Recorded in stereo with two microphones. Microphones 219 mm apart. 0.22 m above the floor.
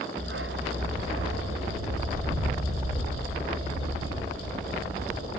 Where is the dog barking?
60° right (ahead or behind), 1.3 m; by 5.4 s 80° right, 4 m.